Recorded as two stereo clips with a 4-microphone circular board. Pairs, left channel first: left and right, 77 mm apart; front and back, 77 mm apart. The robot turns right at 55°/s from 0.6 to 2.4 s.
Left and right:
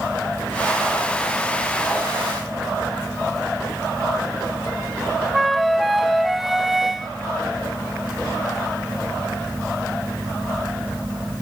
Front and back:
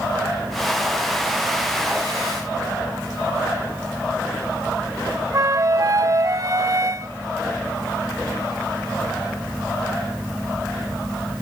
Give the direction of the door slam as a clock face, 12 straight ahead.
No door slam in this recording.